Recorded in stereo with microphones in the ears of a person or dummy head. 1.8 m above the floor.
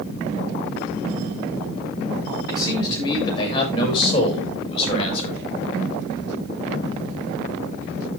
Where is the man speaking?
20° left (ahead or behind), 7 m; by 5.4 s 35° left (ahead or behind), 5 m.